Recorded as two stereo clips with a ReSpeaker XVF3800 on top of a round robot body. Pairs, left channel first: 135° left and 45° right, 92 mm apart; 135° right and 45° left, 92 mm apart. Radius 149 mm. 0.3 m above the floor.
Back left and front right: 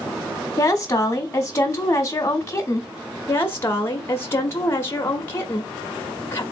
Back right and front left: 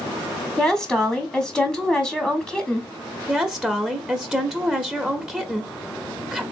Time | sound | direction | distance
0.6 | a woman speaking | 145° left | 1.3 m
3.3 | a woman speaking | 115° left | 0.9 m